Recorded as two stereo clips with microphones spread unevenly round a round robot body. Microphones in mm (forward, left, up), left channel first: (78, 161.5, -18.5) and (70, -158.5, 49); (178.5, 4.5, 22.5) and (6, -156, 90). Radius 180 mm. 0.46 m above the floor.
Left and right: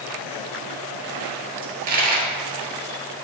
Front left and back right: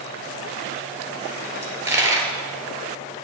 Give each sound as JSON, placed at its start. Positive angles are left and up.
{"t": 1.6, "sound": "a dropped coin", "azimuth_deg": -60, "distance_m": 1.8}